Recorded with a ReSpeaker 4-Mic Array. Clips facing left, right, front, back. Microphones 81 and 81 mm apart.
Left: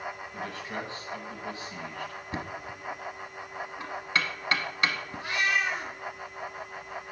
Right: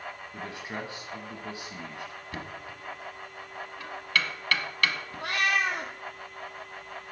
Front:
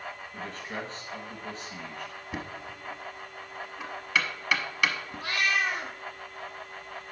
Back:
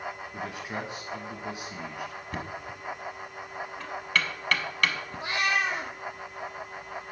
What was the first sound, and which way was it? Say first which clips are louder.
A man speaking: right 1 dB, even; 120° right.